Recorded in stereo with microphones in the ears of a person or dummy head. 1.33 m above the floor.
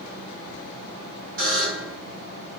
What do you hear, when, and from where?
1.4 s a buzzer: 60° right (ahead or behind), 2 m